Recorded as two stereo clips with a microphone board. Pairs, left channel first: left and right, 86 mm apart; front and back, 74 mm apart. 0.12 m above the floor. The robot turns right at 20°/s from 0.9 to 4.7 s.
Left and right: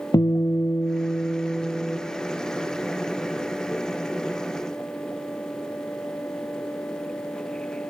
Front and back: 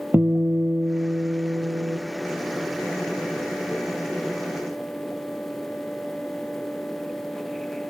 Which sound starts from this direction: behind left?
A guitar, at 0.1 s.